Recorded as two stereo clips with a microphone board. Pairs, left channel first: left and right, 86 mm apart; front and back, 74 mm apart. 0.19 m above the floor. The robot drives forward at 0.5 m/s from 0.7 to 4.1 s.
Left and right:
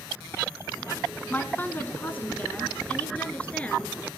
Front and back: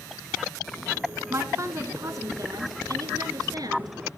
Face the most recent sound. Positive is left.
turn(degrees=165)